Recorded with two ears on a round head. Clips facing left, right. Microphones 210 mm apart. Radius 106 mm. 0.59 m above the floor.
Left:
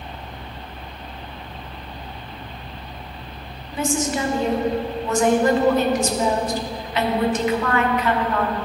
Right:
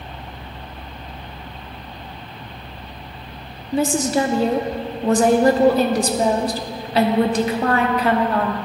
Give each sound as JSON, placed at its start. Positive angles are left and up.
{"t": 3.7, "sound": "a woman speaking", "side_deg": -30, "distance_m": 0.7}